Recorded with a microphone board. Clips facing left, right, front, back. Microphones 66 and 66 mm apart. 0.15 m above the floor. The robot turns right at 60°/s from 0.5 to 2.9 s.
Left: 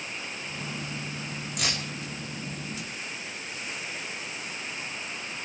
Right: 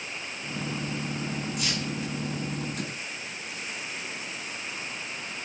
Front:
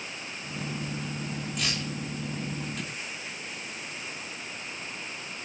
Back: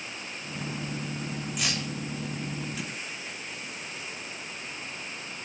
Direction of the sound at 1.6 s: 100° left.